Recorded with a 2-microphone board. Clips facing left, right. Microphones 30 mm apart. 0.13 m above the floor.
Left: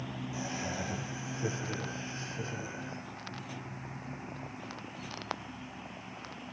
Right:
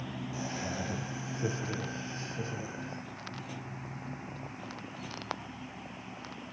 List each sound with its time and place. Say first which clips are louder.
0.3 s laughter: even; 15° right (ahead or behind), 5.5 m